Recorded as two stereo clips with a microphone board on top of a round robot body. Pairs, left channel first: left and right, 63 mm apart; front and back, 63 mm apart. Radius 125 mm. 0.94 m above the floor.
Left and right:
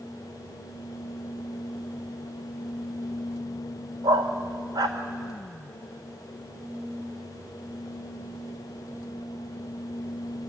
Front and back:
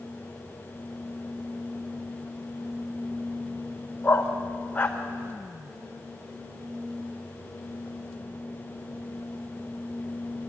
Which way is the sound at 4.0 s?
65° right.